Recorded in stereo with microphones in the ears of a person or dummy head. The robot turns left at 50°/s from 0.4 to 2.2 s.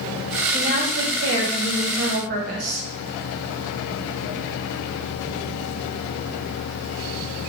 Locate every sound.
0.5 s a woman speaking: 30° right, 0.9 m; by 2.9 s 120° right, 0.9 m